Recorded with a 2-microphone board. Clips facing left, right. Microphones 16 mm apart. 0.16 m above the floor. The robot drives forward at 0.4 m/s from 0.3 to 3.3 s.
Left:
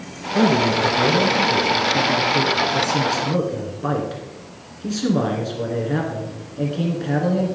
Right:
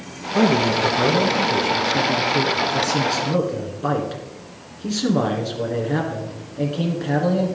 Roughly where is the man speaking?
Centre.